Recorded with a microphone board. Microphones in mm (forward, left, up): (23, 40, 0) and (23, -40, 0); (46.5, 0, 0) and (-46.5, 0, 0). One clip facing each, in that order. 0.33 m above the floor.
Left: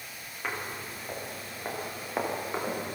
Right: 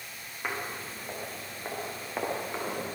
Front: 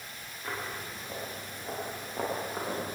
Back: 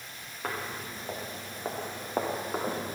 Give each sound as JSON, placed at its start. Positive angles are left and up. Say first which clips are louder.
{"t": 0.4, "sound": "footsteps", "louder": "even, back 2 dB", "azimuth_deg": -170, "distance_m": 7.5}